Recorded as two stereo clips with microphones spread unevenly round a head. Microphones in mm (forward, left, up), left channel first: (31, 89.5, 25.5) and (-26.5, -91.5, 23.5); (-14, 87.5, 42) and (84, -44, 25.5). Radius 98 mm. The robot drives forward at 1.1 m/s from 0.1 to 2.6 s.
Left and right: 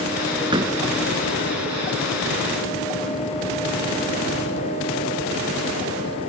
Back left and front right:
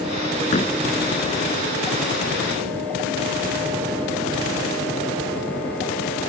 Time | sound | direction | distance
0.5 | a door slam | 175° right | ?